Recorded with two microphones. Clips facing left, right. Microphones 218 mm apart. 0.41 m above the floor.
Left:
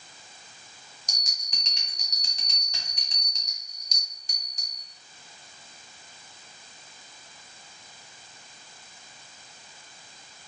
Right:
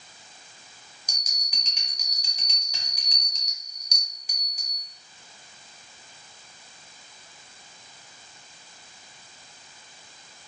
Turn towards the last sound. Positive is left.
turn(degrees=-10)  # may be behind; listen again after turning